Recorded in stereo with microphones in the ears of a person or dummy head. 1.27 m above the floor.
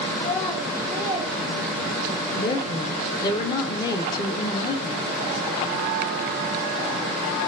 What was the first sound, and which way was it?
A child speaking, 20° left (ahead or behind).